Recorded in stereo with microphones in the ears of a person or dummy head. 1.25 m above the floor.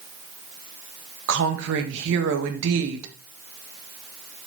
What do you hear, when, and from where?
1.3 s a woman speaking: 65° right (ahead or behind), 1.6 m